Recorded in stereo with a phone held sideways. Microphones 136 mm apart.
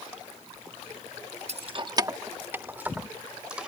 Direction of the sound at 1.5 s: 55° right (ahead or behind).